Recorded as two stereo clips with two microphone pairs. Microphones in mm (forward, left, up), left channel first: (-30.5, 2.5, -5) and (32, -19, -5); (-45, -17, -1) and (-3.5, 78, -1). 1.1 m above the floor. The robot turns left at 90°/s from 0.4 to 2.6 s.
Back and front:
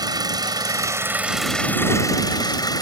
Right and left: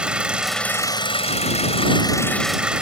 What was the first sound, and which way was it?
An engine running, 15° right.